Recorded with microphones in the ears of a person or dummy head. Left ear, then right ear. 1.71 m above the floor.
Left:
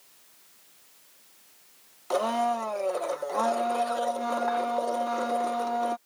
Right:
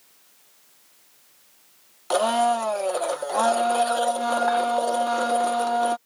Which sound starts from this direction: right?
A blender, at 2.1 s.